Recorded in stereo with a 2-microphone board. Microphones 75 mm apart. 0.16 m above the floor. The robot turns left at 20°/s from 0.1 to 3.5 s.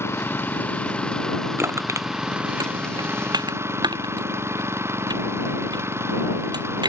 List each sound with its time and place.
0.0 s an engine running: 35° left; by 6.9 s 35° right
1.6 s crushing: 35° right (ahead or behind); by 6.9 s 70° right (ahead or behind)